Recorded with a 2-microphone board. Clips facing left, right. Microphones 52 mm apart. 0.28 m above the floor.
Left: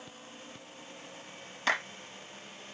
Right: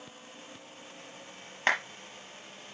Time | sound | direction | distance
1.7 | a clap | 45° right (ahead or behind) | 5 m